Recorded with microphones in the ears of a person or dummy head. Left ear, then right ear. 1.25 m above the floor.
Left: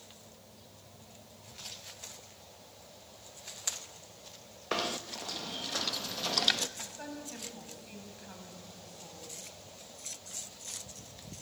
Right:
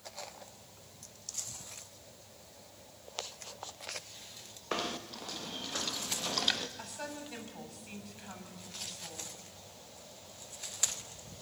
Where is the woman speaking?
10° right (ahead or behind), 6.5 m.